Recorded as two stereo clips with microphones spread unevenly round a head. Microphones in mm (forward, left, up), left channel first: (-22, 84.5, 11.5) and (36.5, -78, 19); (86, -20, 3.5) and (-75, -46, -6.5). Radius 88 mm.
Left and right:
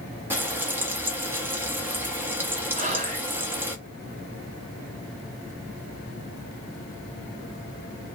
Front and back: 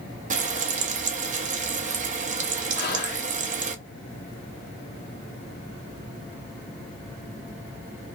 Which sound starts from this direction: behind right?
Frying, at 0.3 s.